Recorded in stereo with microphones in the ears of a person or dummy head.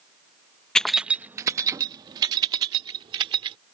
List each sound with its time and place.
0.8 s keys jangling: 5° left (ahead or behind); by 3.6 s 30° right (ahead or behind)